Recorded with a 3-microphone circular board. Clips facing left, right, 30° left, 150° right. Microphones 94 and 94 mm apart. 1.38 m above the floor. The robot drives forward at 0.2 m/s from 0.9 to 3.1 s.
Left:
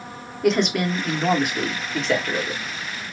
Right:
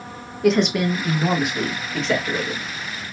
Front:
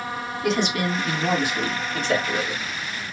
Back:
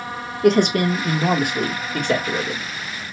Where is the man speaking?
Straight behind, 1.0 m.